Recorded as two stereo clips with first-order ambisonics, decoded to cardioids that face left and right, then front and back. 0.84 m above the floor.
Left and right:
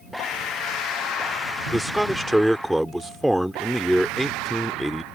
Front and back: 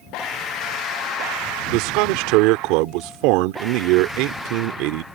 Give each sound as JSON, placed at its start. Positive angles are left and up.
{"t": 1.7, "sound": "a man speaking", "azimuth_deg": -175}